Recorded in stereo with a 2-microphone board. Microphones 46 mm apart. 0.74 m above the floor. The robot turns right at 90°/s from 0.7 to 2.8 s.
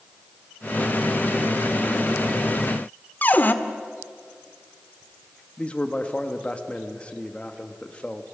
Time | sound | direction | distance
3.2 | a cupboard door | 40° left (ahead or behind) | 1.0 m
5.6 | a man speaking | 25° left (ahead or behind) | 1.4 m